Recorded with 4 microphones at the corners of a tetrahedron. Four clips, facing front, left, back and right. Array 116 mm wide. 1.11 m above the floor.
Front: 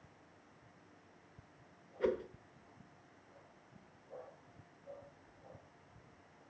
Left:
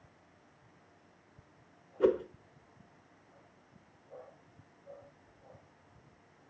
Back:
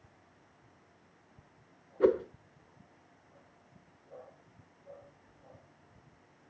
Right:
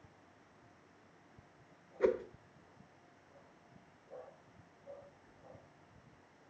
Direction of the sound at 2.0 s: 155° left.